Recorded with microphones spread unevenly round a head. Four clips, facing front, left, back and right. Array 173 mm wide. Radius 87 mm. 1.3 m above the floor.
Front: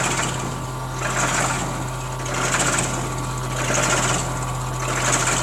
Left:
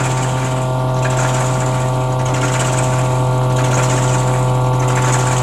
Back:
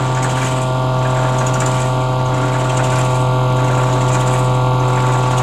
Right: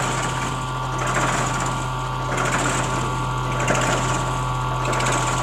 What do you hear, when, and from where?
0.0 s a machine running: 145° left